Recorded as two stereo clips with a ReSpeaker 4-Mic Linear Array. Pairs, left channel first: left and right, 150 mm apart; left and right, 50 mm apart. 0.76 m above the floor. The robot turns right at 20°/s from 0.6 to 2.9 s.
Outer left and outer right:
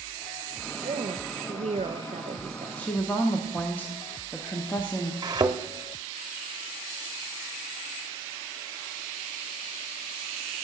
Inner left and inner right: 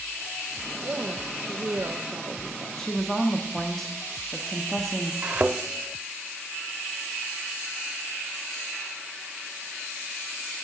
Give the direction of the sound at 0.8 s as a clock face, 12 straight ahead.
3 o'clock.